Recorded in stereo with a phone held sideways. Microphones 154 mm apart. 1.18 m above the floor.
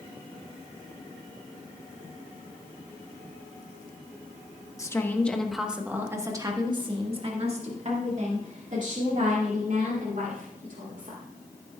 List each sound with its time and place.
4.8 s a woman speaking: 20° left (ahead or behind), 1.1 m; by 11.2 s 65° right (ahead or behind), 3.5 m